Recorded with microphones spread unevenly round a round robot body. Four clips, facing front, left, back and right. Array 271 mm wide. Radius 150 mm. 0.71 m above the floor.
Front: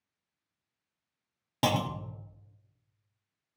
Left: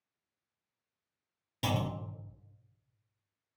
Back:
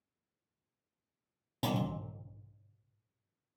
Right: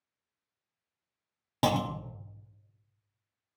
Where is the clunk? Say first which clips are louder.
Right 6 dB, front 6 dB; 55° right, 0.7 m.